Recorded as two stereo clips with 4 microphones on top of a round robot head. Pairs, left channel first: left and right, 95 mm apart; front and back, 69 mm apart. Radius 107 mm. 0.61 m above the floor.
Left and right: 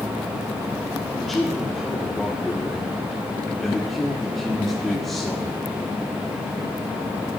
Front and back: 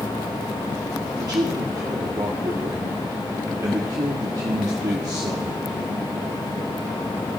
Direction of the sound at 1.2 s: 175° left.